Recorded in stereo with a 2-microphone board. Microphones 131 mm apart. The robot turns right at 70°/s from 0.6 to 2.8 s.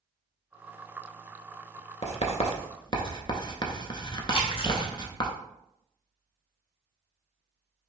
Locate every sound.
2.0 s writing: 55° left (ahead or behind), 0.7 m; by 5.3 s 40° left (ahead or behind), 0.7 m
4.3 s a splash: 40° left (ahead or behind), 0.7 m